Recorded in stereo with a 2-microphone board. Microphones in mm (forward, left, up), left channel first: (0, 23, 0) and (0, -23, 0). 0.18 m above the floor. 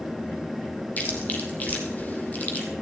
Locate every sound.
1.0 s chewing: 35° left (ahead or behind), 1.8 m